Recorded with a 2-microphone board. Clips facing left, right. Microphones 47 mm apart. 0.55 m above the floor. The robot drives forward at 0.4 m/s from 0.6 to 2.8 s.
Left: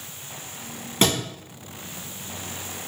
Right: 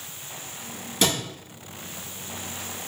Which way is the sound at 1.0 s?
35° left (ahead or behind).